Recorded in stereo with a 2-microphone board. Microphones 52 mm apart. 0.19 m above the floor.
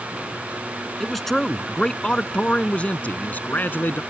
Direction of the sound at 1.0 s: Centre (ahead or behind).